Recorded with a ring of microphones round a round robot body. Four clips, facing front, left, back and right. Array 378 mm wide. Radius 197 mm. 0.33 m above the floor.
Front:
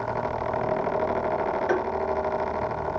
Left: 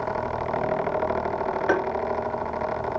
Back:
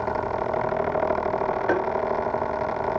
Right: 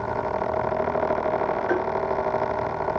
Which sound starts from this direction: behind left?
Tapping, at 1.7 s.